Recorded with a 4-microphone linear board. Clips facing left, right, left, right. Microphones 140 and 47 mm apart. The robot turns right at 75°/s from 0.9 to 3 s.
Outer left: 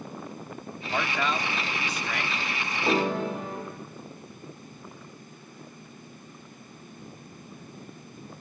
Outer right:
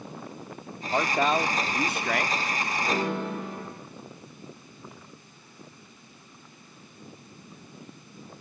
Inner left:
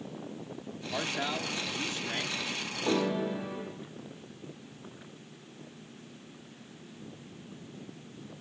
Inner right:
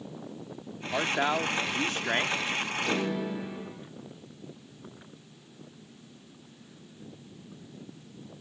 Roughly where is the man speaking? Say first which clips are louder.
Outer right 4 dB, inner right 6 dB; behind.